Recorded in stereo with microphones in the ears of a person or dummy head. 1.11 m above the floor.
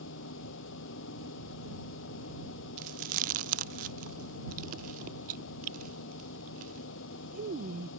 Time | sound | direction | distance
0.0 | a machine running | 65° left (ahead or behind) | ?
2.8 | chewing | 40° right (ahead or behind) | ?